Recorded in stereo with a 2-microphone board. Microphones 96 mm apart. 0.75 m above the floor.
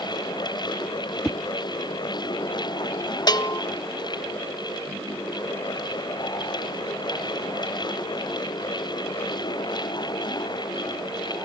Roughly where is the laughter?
No laughter in this recording.